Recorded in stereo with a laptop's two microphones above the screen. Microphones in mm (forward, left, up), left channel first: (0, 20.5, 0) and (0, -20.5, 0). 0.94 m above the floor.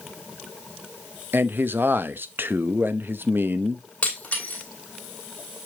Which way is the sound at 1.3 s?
60° right (ahead or behind).